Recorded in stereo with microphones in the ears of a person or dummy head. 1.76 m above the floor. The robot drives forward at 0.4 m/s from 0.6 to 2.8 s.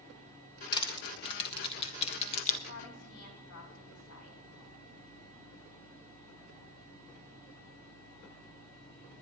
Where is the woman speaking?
85° left, 3 m; by 4.4 s 80° left, 3 m.